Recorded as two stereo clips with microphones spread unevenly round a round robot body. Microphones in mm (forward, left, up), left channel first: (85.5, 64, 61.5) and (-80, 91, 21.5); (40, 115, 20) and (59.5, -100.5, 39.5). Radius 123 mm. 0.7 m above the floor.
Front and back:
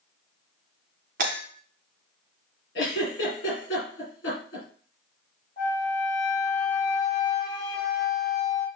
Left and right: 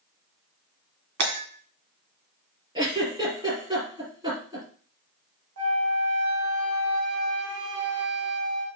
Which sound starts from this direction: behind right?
Breaking glass, at 1.2 s.